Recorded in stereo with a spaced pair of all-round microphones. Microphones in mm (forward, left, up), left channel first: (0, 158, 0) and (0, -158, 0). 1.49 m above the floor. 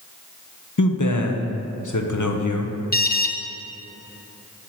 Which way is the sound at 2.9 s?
30° left (ahead or behind).